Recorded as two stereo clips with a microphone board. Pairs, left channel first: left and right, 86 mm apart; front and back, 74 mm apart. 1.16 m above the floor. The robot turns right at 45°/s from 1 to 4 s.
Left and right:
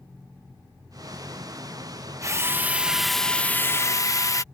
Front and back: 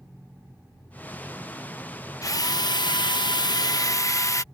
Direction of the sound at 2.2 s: 40° right.